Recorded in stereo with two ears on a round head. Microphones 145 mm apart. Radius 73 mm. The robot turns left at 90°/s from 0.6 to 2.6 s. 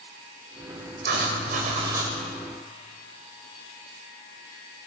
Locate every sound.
1.0 s writing: 75° right, 1.9 m; by 2.1 s 175° right, 1.9 m